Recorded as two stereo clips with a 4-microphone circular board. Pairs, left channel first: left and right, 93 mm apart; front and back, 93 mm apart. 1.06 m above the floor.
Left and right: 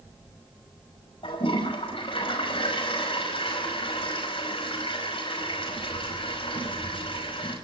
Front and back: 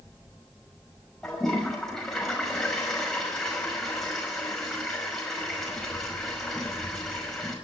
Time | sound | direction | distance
1.2 | a toilet flushing | 85° left | 5.5 m